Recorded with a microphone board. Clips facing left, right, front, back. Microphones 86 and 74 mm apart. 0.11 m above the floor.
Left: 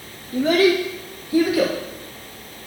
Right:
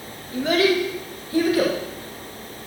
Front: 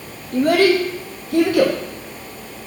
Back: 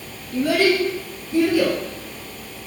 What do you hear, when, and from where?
0.3 s a child speaking: 40° left, 2.5 m; by 1.8 s 15° left, 3.5 m